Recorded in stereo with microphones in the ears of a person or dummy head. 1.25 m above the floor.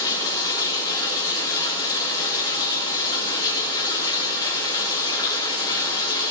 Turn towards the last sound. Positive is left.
turn(degrees=20)  # may be behind; listen again after turning